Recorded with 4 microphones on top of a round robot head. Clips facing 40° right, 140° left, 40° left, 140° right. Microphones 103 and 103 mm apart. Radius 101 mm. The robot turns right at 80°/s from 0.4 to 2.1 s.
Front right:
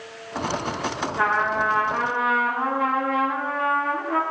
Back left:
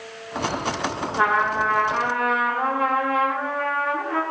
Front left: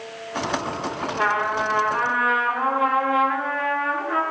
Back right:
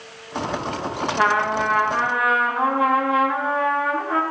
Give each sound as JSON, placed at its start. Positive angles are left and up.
{"t": 1.1, "sound": "a trumpet", "azimuth_deg": -155, "distance_m": 3.0}